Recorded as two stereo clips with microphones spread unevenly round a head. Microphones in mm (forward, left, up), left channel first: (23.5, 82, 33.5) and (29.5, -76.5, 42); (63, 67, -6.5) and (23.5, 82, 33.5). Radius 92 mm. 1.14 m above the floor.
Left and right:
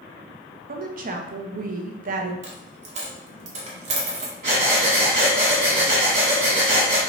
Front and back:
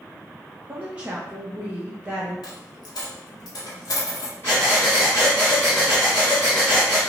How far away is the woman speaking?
About 0.7 m.